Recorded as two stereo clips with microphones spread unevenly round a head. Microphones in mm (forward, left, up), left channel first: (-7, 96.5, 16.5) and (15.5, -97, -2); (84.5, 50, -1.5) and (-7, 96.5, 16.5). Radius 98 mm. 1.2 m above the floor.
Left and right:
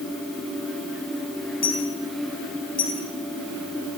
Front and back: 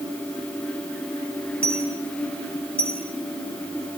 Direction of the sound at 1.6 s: 55° left.